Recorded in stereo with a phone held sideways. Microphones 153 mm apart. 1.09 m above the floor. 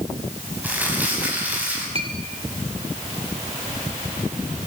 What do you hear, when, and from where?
0.6 s crumpling: 10° right (ahead or behind), 6.5 m
1.9 s a clink: 40° right (ahead or behind), 2.5 m